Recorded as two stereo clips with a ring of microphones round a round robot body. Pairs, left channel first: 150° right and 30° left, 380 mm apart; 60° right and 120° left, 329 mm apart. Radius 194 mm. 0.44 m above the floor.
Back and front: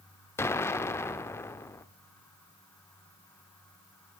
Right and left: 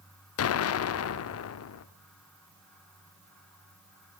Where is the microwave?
No microwave in this recording.